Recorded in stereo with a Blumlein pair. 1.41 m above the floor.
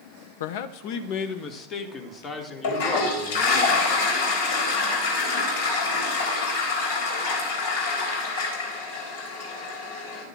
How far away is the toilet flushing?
About 4 m.